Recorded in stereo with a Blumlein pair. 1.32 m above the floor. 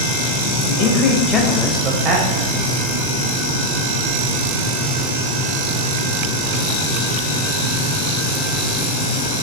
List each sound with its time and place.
0.6 s a man speaking: 40° left, 0.9 m; by 2.5 s 55° right, 0.6 m